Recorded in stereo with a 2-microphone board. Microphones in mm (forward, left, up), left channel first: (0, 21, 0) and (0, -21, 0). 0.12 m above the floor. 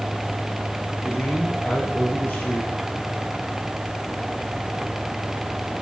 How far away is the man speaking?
About 3 m.